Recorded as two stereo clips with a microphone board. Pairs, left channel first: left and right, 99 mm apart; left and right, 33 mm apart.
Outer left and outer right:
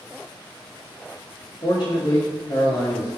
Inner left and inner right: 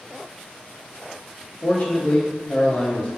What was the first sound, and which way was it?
A man speaking, 45° left (ahead or behind).